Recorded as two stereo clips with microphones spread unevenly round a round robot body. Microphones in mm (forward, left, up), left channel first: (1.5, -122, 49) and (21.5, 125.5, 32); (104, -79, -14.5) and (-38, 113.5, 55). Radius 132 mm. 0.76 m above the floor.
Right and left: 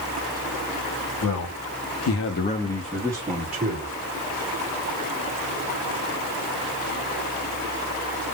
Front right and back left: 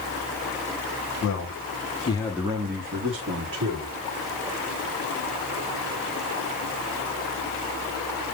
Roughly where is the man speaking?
Right.